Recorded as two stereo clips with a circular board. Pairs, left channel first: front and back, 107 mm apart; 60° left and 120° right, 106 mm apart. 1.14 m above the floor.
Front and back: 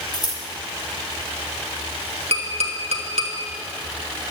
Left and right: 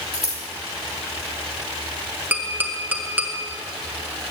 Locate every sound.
0.1 s scissors: 50° left, 2 m
2.3 s tapping: 165° left, 1.4 m